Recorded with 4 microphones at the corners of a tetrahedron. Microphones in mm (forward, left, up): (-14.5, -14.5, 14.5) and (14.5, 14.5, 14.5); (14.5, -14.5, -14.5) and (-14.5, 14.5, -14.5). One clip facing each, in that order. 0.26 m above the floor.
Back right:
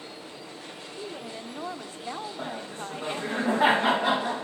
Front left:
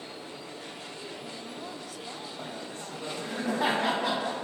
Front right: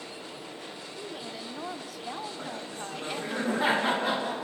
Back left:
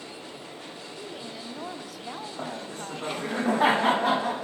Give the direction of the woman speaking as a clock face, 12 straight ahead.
4 o'clock.